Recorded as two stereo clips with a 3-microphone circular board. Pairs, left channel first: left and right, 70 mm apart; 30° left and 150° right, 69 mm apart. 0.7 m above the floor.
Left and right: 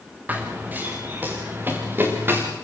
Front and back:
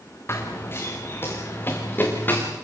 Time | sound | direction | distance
0.3 | running footsteps | 25° right | 3.5 m